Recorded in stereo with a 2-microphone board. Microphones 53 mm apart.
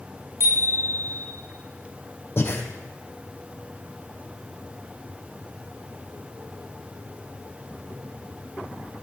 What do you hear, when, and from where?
0.4 s a bicycle bell: 60° right (ahead or behind), 8.5 m
2.4 s breathing: 50° left (ahead or behind), 2 m